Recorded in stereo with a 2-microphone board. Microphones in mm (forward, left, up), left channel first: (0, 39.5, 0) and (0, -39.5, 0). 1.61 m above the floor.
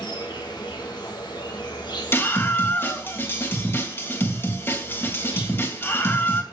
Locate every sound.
0.0 s an insect: 65° left (ahead or behind), 3 m
2.1 s a scream: 30° left (ahead or behind), 3 m